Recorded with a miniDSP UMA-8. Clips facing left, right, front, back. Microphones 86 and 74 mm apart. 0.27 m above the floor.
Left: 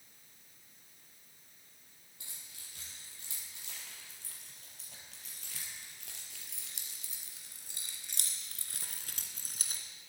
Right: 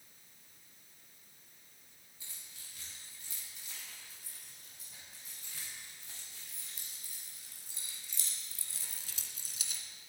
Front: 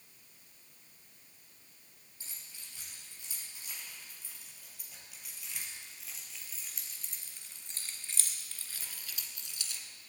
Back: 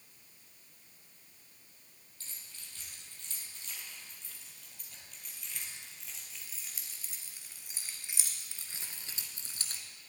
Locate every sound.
2.2 s keys jangling: 75° left, 6.5 m; by 9.8 s 135° left, 1.9 m